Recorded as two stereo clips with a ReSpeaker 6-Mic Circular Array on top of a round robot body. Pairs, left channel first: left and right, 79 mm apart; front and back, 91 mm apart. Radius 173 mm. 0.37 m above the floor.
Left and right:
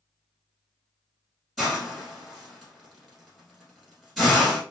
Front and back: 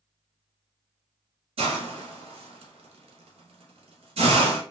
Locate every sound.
1.6 s a hiss: straight behind, 1.0 m